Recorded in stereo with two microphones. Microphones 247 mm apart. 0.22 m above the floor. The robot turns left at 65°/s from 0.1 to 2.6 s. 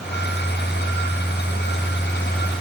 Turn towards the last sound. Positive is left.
No sound to turn to.